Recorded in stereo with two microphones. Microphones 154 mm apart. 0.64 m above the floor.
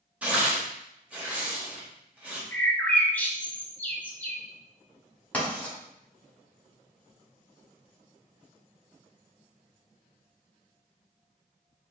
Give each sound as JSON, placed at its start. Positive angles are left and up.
{"t": 0.2, "sound": "tearing paper", "side_deg": -10, "distance_m": 0.9}
{"t": 2.5, "sound": "a bird", "side_deg": 10, "distance_m": 0.5}
{"t": 5.3, "sound": "writing", "side_deg": 10, "distance_m": 1.5}